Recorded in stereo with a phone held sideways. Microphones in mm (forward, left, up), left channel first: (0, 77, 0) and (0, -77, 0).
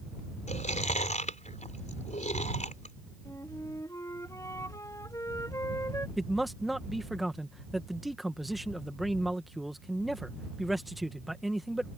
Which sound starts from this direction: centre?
A man speaking, at 6.2 s.